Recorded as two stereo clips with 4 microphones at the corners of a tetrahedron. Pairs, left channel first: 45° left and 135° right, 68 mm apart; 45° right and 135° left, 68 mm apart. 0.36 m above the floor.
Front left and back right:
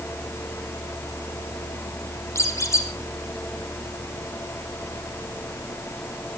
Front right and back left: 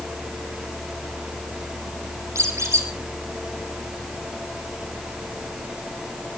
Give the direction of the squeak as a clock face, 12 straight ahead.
9 o'clock.